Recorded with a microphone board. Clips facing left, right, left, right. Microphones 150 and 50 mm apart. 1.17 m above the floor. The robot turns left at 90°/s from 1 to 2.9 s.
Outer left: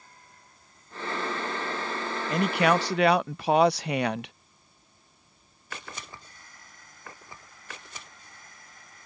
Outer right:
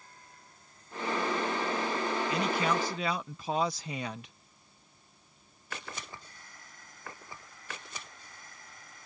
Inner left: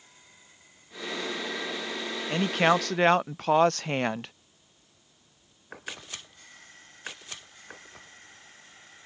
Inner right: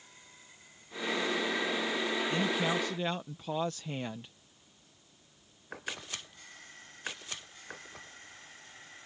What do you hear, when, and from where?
2.3 s a man speaking: 135° left; by 4.3 s 80° left